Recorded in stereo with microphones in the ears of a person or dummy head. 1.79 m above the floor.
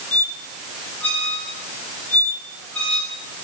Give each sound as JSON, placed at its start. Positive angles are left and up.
{"t": 0.1, "sound": "a squeak", "side_deg": 10, "distance_m": 1.8}